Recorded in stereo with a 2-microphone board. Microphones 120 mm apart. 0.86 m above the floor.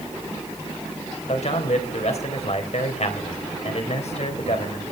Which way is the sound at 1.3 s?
65° left (ahead or behind).